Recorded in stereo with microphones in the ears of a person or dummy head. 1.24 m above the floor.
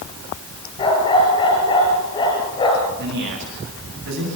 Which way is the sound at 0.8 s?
30° left (ahead or behind).